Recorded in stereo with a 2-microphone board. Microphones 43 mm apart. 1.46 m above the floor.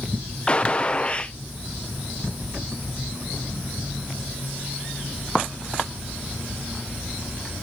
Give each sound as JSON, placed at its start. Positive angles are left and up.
{"t": 0.5, "sound": "a gunshot", "side_deg": 25, "distance_m": 0.7}